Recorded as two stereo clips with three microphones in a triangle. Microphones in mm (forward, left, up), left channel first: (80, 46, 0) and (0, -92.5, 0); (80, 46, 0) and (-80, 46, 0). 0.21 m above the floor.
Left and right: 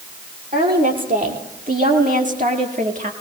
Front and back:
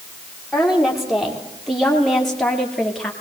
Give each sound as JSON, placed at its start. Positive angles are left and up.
{"t": 0.5, "sound": "a woman speaking", "azimuth_deg": -90, "distance_m": 5.5}